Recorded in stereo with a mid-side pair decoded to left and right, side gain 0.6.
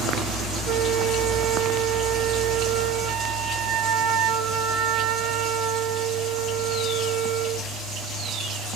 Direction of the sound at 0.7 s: 60° right.